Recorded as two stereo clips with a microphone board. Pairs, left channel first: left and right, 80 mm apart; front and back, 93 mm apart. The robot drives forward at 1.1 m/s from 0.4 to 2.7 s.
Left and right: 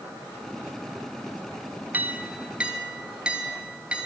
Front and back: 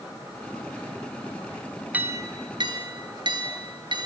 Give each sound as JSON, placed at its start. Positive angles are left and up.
{"t": 1.9, "sound": "a clink", "azimuth_deg": -125, "distance_m": 0.7}